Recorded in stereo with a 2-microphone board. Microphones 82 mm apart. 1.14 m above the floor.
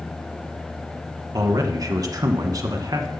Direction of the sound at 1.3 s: 45° right (ahead or behind).